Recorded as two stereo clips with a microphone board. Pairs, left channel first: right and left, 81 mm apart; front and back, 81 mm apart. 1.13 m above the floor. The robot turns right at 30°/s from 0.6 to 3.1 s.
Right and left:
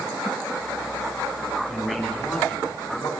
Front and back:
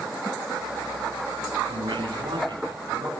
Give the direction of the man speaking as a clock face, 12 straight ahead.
6 o'clock.